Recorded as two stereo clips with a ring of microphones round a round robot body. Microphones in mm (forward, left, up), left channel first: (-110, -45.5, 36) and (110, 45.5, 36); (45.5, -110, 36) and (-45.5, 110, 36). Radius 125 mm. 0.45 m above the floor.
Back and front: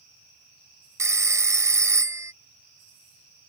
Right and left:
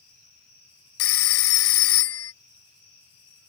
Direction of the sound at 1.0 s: 55° right.